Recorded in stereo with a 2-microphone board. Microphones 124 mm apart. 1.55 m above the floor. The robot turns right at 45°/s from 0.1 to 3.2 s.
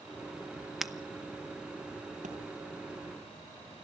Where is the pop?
75° right (ahead or behind), 4.5 m.